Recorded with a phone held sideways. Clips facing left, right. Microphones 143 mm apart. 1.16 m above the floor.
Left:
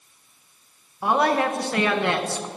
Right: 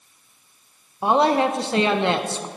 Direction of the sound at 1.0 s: 25° right (ahead or behind).